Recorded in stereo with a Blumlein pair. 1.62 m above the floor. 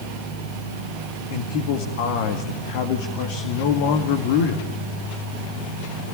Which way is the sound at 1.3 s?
50° left.